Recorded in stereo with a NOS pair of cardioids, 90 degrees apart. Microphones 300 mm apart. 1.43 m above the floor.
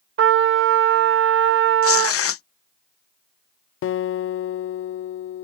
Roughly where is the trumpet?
Ahead right.